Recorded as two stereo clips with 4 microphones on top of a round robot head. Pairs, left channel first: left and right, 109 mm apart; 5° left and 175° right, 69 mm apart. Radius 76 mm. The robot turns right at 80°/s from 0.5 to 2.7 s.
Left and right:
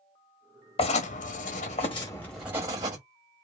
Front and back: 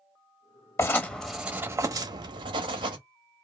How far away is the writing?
About 0.7 m.